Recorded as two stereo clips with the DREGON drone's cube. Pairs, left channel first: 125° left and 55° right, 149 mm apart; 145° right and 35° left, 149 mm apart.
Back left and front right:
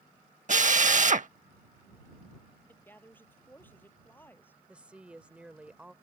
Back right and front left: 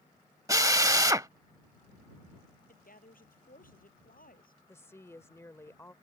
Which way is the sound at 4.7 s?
125° right.